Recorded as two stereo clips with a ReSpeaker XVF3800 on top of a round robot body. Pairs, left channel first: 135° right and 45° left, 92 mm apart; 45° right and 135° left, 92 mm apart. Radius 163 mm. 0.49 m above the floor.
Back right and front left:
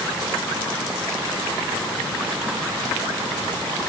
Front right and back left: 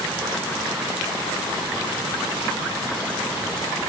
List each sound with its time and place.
Only background noise.